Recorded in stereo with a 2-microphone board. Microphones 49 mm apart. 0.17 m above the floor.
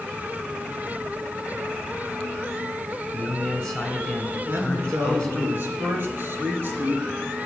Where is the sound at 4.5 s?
45° right (ahead or behind), 3 m.